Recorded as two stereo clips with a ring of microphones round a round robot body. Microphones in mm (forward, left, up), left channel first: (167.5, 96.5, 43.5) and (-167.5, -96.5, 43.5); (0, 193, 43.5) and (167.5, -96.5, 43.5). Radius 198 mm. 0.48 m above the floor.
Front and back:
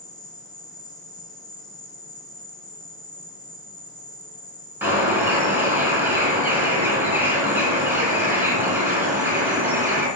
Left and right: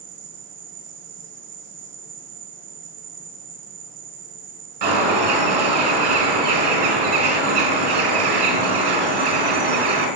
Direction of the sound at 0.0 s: 45° right.